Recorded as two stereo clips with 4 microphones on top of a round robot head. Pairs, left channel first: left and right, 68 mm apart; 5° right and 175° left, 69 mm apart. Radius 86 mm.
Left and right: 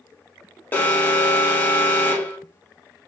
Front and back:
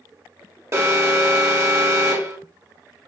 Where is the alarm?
145° left, 0.9 m.